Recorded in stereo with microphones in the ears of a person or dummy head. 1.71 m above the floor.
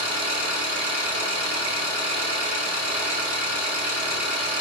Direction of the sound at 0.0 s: 35° right (ahead or behind).